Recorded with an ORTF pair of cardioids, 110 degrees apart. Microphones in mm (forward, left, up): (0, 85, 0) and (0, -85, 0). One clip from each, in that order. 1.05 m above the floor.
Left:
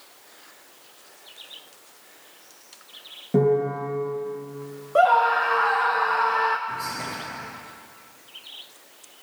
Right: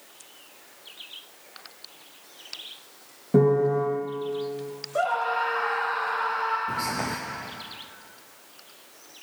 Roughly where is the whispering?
Ahead right.